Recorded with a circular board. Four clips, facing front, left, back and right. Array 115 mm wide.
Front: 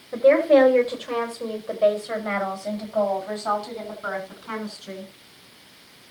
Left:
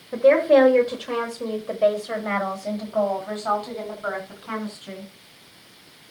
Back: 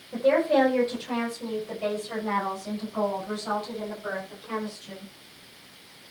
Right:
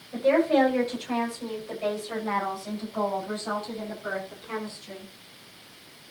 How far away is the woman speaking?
About 5.5 m.